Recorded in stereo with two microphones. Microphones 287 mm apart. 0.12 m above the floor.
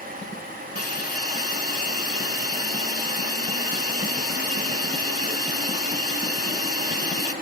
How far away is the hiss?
About 1.2 m.